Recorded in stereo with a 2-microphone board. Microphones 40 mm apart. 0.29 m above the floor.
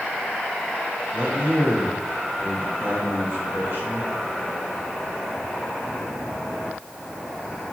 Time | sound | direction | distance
1.1 | a man speaking | 55° right (ahead or behind) | 3 m